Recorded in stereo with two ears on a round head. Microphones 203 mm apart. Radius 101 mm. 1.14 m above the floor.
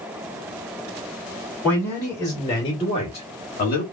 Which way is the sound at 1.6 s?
Centre (ahead or behind).